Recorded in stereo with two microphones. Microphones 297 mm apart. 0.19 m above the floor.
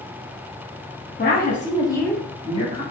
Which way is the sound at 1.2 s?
35° left (ahead or behind).